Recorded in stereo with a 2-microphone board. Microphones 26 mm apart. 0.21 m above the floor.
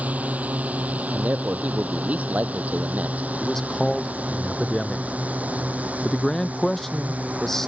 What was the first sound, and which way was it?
A drone, 70° right (ahead or behind).